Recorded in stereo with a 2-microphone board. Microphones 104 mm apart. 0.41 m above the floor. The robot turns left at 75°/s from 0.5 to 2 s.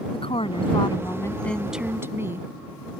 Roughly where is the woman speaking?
Left.